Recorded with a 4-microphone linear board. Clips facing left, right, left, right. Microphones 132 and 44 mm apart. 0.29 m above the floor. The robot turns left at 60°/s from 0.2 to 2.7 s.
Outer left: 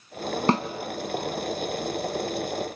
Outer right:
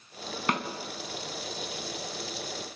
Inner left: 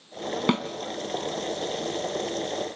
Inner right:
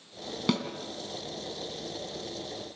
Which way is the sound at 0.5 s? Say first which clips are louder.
Outer left 7 dB, inner left 3 dB; 30° left (ahead or behind).